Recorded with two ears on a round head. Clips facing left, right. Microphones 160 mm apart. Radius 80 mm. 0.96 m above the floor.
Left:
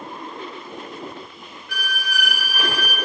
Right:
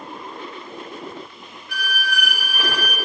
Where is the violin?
65° left (ahead or behind), 2.5 m.